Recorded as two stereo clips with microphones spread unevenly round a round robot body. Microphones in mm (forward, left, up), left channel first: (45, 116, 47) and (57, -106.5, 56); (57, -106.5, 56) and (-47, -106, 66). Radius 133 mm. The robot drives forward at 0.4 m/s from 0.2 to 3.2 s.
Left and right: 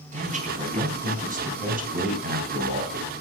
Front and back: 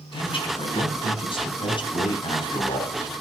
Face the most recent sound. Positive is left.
turn(degrees=-40)